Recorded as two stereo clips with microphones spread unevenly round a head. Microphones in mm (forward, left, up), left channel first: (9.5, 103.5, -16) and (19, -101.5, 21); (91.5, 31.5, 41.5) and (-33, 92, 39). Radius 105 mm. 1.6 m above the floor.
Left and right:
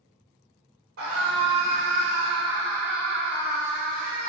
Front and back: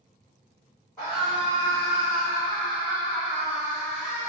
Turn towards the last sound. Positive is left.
turn(degrees=10)